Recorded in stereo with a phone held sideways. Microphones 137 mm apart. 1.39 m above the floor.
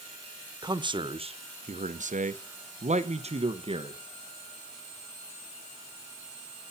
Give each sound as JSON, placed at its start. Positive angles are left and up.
{"t": 0.6, "sound": "a man speaking", "side_deg": -30, "distance_m": 1.0}